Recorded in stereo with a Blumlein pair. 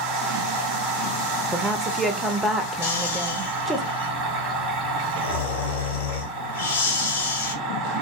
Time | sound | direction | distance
0.0 | a machine running | 30° right | 1.2 m
1.5 | a woman speaking | straight ahead | 0.7 m
2.8 | snoring | 60° left | 1.0 m